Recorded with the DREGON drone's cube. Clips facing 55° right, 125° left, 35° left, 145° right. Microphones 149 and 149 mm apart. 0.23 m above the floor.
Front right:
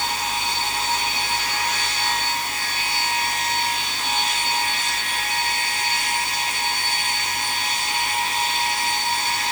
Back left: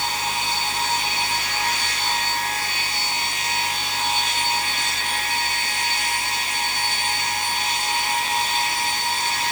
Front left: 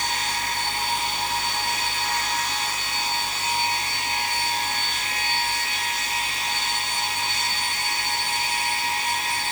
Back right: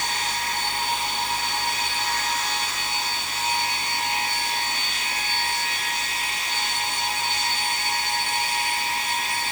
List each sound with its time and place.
Only background noise.